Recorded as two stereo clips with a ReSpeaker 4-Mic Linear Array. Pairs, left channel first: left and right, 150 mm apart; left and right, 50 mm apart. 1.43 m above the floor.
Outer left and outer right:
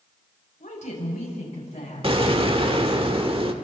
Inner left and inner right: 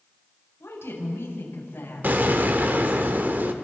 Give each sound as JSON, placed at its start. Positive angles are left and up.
{"t": 0.6, "sound": "a woman speaking", "side_deg": 55, "distance_m": 7.0}
{"t": 2.0, "sound": "an explosion", "side_deg": -40, "distance_m": 1.3}